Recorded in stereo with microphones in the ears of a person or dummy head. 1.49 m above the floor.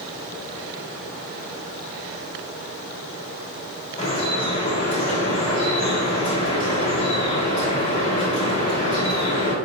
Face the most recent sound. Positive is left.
turn(degrees=40)  # may be behind; listen again after turning